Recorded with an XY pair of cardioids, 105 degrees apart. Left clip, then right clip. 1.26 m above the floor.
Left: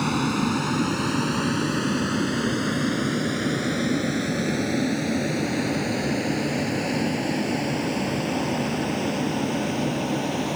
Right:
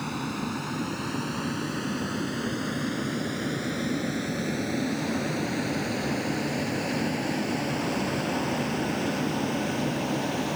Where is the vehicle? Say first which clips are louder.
Left 8 dB; 60° left; by 10.6 s 25° left.